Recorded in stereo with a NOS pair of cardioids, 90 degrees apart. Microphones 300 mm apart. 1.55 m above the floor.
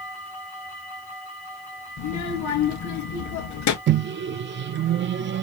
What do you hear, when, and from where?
2.0 s a child speaking: 70° left, 2.5 m
3.9 s a microwave: 40° right, 0.5 m